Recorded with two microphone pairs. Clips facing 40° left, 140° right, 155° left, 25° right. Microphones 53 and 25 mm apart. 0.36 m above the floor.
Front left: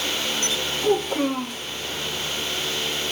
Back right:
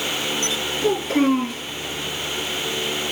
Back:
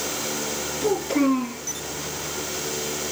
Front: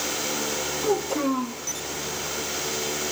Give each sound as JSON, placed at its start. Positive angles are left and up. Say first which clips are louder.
{"t": 0.8, "sound": "a child speaking", "louder": "back right 3 dB, back 4 dB", "azimuth_deg": -140, "distance_m": 4.5}